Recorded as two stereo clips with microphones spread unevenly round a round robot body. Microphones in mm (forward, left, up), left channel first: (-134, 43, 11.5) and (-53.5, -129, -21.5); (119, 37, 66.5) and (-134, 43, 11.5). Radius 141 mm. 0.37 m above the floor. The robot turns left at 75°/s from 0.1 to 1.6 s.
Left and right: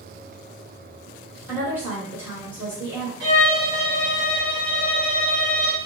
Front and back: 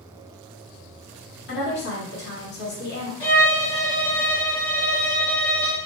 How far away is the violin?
About 1.0 m.